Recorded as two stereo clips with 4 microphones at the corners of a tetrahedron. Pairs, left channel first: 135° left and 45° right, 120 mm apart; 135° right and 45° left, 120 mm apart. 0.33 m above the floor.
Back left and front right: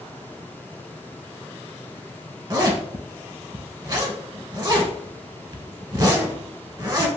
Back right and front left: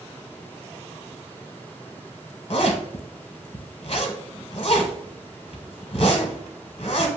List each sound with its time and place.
2.5 s a zipper: 100° right, 1.0 m